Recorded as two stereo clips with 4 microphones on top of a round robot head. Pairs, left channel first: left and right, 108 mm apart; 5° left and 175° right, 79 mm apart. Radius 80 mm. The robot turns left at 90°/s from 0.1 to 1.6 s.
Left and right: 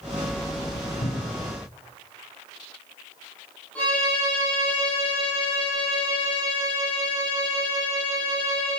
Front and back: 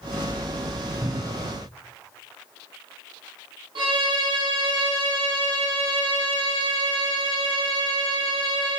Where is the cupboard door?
145° left, 1.1 m; by 1.5 s 100° left, 1.1 m.